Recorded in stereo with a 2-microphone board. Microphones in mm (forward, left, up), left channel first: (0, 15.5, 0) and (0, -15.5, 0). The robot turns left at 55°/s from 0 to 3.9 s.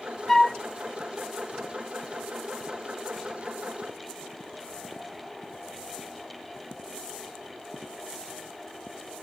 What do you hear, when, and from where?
0.3 s a flute: 5° left (ahead or behind), 1.0 m; by 0.6 s 20° left (ahead or behind), 1.0 m